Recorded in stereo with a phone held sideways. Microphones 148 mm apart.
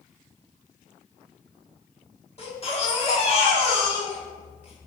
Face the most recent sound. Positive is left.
turn(degrees=45)  # may be behind; listen again after turning